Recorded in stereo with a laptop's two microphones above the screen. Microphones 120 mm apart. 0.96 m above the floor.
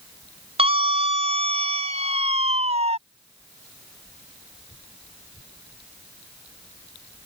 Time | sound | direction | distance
0.6 | a scream | 55° right (ahead or behind) | ?